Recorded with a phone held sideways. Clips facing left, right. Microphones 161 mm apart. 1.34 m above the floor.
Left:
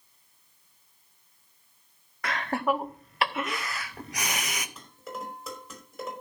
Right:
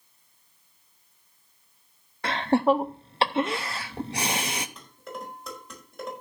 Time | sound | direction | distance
2.2 | laughter | 30° right (ahead or behind) | 0.7 m
4.8 | dishes clattering | 5° left (ahead or behind) | 4.5 m